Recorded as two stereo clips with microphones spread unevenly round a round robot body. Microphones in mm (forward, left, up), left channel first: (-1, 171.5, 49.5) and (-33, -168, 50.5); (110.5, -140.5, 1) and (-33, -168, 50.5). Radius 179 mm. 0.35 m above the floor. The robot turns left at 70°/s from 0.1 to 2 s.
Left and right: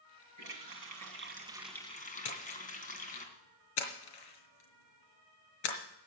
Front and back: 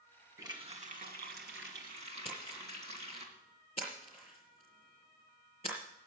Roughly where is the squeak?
I don't hear a squeak.